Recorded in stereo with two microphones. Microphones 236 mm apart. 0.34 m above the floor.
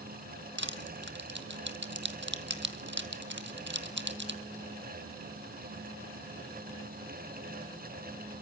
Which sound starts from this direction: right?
Crushing, at 0.6 s.